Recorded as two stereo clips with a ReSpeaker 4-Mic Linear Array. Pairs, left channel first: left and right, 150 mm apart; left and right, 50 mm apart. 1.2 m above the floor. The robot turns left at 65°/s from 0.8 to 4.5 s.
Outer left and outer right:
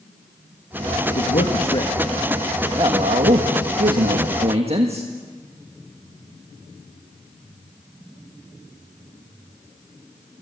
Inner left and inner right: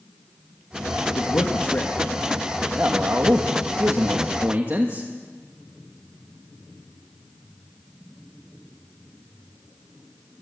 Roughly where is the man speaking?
Left.